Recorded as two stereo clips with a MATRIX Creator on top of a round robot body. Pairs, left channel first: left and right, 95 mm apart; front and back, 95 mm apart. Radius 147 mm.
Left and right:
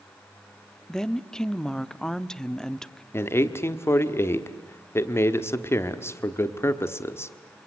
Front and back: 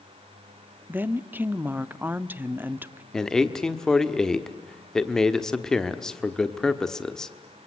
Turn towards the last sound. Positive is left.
turn(degrees=75)